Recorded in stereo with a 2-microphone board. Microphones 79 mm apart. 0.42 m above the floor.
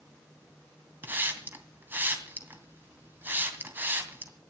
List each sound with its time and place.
1.0 s a hiss: 25° right (ahead or behind), 2.5 m